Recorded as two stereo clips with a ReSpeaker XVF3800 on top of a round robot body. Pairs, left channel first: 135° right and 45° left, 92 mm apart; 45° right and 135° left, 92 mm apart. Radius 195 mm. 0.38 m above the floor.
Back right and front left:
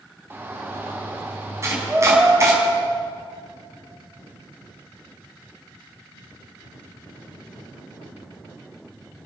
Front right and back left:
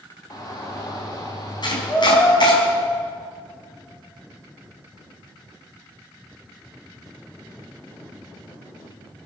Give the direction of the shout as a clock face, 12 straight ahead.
12 o'clock.